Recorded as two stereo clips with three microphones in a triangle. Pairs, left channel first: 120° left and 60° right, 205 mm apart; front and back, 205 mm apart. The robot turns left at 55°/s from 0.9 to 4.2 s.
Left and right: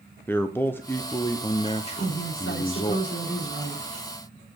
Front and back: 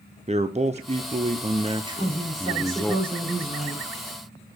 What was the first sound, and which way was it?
A man speaking, 170° right.